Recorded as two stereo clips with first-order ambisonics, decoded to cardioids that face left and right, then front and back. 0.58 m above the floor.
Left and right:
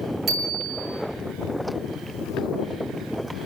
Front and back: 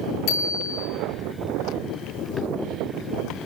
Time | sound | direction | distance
0.3 | a bicycle bell | 25° right | 4.5 m